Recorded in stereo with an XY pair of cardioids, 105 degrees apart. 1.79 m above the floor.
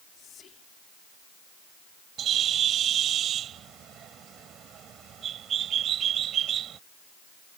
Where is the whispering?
60° left.